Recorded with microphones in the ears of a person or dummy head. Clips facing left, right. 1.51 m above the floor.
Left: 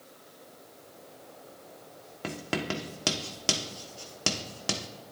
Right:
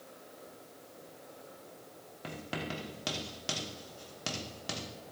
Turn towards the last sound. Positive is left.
turn(degrees=65)  # may be behind; listen again after turning